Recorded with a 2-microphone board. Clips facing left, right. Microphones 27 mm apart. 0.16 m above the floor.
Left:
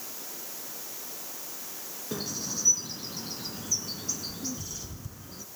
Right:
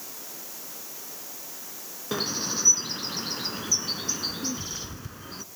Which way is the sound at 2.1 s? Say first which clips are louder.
Right 6 dB; 40° right (ahead or behind).